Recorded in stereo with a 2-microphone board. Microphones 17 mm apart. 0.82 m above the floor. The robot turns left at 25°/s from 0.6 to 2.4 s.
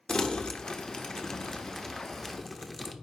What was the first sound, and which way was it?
Crumpling, 50° left (ahead or behind).